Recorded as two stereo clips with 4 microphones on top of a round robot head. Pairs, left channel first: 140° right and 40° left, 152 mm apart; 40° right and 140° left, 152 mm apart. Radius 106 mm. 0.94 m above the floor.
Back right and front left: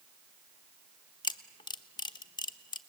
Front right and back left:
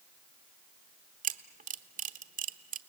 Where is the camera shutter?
165° left, 1.1 m.